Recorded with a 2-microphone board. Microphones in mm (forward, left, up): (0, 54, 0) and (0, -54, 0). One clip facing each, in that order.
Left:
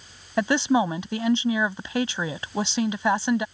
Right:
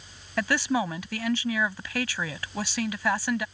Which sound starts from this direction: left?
A woman speaking, at 0.4 s.